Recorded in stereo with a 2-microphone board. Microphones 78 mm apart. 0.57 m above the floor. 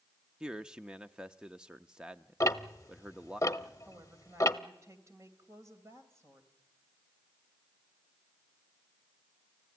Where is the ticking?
40° left (ahead or behind), 0.7 m.